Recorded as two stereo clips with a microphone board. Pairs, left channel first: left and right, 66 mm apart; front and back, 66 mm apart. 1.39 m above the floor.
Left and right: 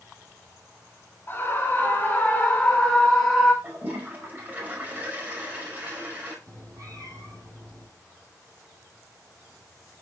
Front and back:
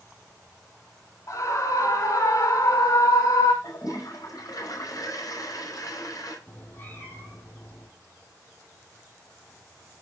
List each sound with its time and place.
1.3 s a scream: 30° left, 3 m; by 3.5 s 5° right, 1.6 m
3.6 s a toilet flushing: 25° right, 5 m
6.5 s a cat meowing: 60° right, 6.5 m